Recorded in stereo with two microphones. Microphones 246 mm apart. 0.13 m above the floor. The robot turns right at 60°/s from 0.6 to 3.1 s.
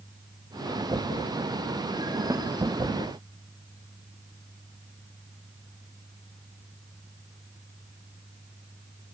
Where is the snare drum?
15° right (ahead or behind); by 2.5 s 5° right (ahead or behind).